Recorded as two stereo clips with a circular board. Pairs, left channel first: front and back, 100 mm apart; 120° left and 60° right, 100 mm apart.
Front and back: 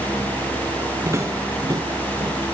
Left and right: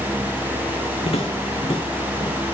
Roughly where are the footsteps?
Behind left.